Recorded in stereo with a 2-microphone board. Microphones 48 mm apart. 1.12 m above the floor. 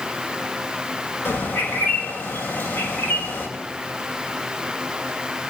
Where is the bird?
40° left (ahead or behind), 6.5 m.